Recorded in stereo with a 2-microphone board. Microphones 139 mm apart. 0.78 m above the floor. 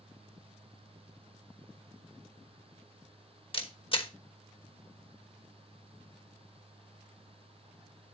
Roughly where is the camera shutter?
Left.